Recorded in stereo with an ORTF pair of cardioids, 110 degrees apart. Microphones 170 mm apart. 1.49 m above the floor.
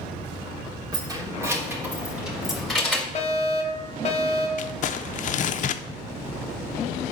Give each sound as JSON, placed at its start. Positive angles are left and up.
{"t": 0.9, "sound": "keys jangling", "azimuth_deg": -25, "distance_m": 3.0}
{"t": 3.1, "sound": "a fire alarm", "azimuth_deg": 40, "distance_m": 2.0}
{"t": 4.6, "sound": "crumpling", "azimuth_deg": 50, "distance_m": 0.7}